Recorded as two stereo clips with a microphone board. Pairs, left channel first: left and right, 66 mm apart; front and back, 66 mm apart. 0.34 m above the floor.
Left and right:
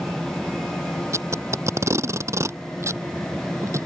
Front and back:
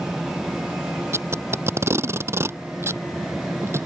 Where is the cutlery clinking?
No cutlery clinking in this recording.